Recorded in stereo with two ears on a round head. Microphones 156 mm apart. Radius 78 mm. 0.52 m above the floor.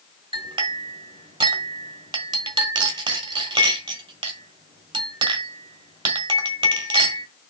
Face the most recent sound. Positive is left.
turn(degrees=-30)  # may be behind; listen again after turning